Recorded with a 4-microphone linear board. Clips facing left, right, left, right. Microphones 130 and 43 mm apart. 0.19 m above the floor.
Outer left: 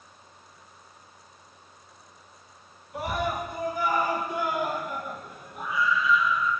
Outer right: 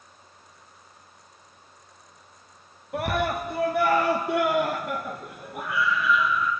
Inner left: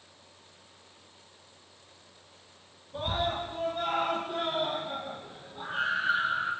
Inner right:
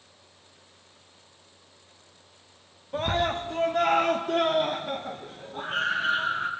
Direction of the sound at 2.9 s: 65° right (ahead or behind).